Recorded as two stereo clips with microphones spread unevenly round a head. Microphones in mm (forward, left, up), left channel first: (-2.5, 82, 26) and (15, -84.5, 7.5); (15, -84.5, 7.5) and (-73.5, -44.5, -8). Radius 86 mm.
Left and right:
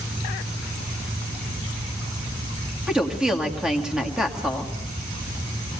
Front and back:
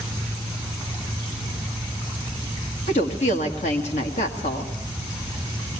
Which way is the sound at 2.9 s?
5° left.